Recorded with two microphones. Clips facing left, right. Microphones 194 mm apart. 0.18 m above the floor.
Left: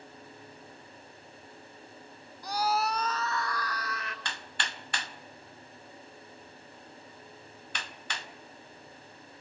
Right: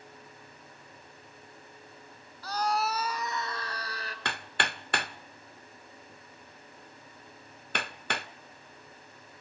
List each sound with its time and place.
2.4 s a scream: 15° left (ahead or behind), 1.5 m; by 4.2 s 35° right (ahead or behind), 2.5 m
4.2 s hammering: 60° right (ahead or behind), 0.5 m